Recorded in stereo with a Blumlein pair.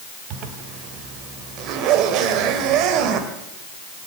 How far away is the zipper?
About 2.5 m.